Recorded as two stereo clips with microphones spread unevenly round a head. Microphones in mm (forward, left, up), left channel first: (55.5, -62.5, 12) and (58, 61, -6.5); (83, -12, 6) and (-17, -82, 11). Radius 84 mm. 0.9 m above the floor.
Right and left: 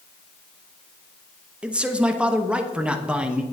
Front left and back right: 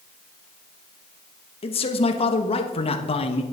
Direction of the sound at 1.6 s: 15° left.